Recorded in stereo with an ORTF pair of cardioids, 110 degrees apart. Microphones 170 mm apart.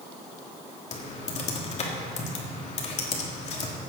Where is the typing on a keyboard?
40° left, 2.5 m.